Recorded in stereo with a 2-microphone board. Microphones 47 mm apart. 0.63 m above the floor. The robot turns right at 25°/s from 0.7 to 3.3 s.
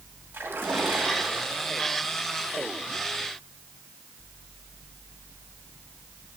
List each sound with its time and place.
0.3 s a splash: 125° right, 2.5 m; by 2.0 s 90° right, 2.5 m